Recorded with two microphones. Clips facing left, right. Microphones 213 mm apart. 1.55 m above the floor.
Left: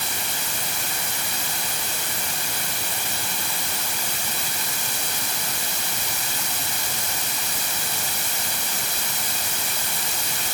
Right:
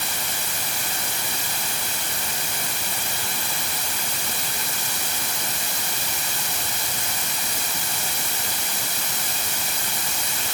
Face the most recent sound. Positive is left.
No sound to turn to.